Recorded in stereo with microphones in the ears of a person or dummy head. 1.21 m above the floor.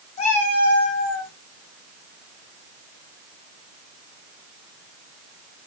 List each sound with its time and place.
0.2 s a cat meowing: 40° left (ahead or behind), 2.5 m; by 1.3 s 70° left (ahead or behind), 3 m